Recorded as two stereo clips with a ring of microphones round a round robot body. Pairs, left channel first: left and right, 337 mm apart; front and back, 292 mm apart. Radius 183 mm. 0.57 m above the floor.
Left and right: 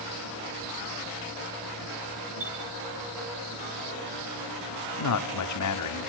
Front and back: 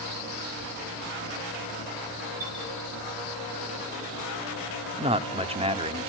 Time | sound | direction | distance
2.4 | a chime | 160° right | 4.5 m
5.0 | a man speaking | 110° left | 1.5 m